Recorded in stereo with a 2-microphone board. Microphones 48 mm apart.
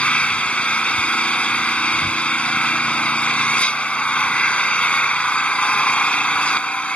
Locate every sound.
0.0 s an engine running: 25° left (ahead or behind)